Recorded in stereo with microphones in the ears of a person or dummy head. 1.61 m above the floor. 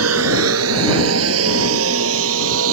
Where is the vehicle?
80° right; by 2.7 s 75° right (ahead or behind).